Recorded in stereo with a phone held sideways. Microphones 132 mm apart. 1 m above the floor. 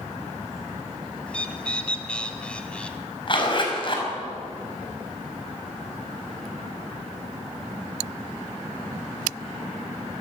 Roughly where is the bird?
Centre.